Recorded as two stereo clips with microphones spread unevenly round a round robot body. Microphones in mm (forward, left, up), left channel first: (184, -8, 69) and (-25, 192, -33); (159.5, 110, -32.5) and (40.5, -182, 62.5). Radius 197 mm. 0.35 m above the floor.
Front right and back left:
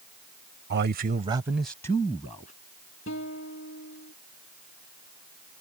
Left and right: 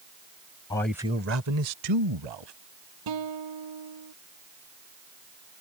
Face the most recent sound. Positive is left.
turn(degrees=-105)